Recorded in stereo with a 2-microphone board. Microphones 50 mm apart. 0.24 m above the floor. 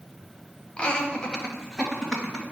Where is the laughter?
25° left (ahead or behind), 1.1 m; by 2.4 s 5° left (ahead or behind), 1.7 m.